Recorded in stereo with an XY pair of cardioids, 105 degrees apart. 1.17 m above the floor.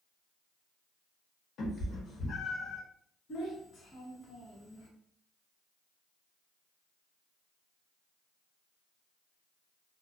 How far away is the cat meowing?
About 1.1 m.